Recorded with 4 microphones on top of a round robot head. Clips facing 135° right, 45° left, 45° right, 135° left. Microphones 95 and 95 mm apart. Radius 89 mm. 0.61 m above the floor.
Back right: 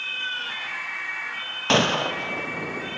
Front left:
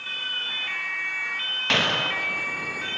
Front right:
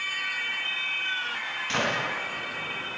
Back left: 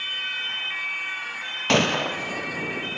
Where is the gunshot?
160° left, 3.5 m.